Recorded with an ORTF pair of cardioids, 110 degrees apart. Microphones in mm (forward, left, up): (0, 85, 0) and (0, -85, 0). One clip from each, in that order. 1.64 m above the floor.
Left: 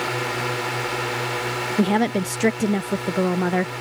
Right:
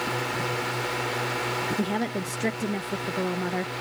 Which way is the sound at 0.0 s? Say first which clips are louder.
Left 3 dB; 25° left.